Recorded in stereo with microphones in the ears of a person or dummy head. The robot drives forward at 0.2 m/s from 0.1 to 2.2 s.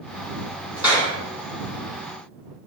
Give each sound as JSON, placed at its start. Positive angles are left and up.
{"t": 0.8, "sound": "a clap", "side_deg": -5, "distance_m": 1.5}